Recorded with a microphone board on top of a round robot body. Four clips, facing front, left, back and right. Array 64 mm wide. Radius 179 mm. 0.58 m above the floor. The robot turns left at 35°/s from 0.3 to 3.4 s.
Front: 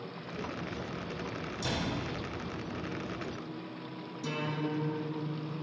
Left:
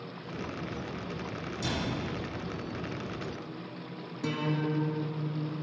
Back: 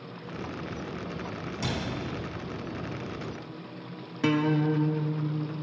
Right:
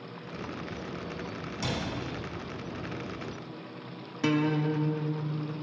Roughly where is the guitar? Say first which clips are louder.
Right 5 dB, back 10 dB; behind right.